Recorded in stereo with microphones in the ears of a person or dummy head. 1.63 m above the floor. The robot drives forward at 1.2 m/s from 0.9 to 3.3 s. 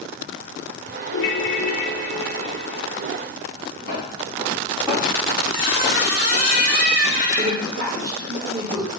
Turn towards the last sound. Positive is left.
turn(degrees=-80)